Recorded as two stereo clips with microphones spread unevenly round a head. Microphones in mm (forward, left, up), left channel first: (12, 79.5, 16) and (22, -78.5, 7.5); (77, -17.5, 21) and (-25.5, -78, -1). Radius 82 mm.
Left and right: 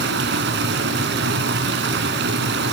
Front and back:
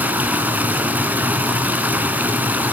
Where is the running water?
70° right, 2.5 m.